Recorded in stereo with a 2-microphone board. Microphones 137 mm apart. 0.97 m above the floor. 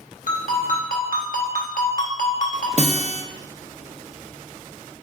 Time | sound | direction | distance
0.3 | a ringtone | 75° left (ahead or behind) | 1.2 m
2.8 | a guitar | 50° right (ahead or behind) | 0.6 m